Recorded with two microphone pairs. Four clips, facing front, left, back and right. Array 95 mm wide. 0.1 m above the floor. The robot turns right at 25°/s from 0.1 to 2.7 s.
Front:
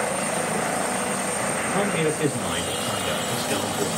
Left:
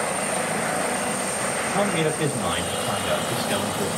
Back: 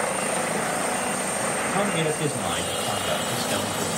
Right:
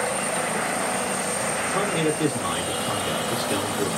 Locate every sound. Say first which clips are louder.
1.7 s a man speaking: left 1 dB, front 2 dB; 20° left, 1.8 m; by 3.9 s 40° left, 1.8 m